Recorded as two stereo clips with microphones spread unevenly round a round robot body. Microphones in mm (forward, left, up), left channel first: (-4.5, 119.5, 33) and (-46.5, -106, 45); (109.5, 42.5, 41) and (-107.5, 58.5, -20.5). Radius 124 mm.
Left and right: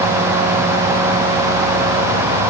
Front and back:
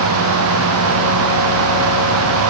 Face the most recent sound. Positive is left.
No sound to turn to.